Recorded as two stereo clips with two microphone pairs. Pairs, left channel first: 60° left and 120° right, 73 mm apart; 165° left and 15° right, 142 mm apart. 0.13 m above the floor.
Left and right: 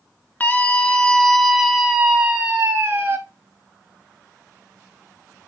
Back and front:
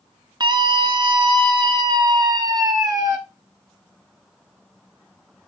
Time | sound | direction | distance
0.4 | a scream | 15° left | 1.5 m